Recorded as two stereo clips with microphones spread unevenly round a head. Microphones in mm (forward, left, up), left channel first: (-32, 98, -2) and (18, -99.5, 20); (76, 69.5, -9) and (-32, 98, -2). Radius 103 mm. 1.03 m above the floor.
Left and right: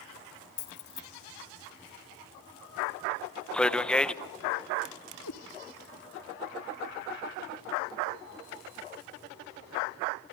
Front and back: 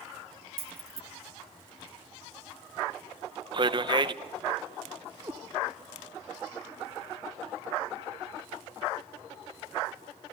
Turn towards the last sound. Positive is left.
turn(degrees=100)